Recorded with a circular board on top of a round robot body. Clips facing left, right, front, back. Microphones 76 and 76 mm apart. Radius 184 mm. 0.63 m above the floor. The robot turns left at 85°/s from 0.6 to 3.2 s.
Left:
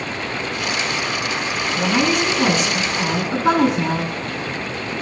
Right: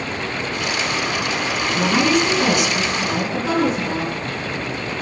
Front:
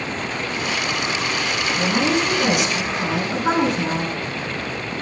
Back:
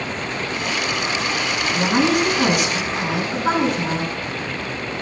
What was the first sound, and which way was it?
A woman speaking, 145° right.